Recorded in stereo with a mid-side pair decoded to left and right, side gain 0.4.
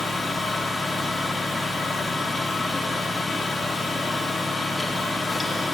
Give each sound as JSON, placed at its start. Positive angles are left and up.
{"t": 0.0, "sound": "a fan", "azimuth_deg": 35, "distance_m": 0.9}